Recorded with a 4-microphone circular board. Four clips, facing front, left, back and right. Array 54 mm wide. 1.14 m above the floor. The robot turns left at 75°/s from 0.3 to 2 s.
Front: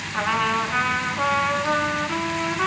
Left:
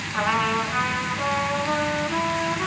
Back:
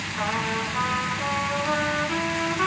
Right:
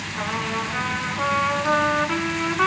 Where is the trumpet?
45° left, 3.5 m; by 2.7 s 85° right, 3.5 m.